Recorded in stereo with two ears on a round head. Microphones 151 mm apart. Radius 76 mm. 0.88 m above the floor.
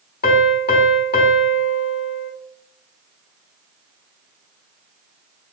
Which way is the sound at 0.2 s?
60° left (ahead or behind).